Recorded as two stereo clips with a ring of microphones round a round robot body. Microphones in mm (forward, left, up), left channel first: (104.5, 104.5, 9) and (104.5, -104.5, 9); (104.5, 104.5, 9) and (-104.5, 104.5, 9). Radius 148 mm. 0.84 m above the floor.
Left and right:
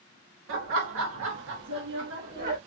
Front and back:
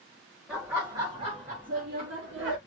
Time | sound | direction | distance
0.5 | laughter | 90° right | 1.4 m